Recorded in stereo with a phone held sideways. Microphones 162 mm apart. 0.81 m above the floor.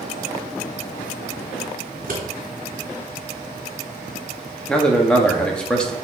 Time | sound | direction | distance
1.9 | scissors | 65° right (ahead or behind) | 2.5 m
4.7 | a man speaking | 5° left (ahead or behind) | 1.3 m